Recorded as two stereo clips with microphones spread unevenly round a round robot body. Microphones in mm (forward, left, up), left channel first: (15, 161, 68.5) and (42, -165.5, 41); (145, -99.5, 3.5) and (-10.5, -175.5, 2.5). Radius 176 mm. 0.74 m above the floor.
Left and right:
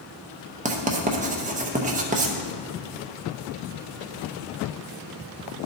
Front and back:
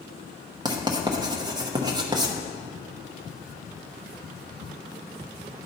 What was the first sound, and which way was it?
Writing, 115° right.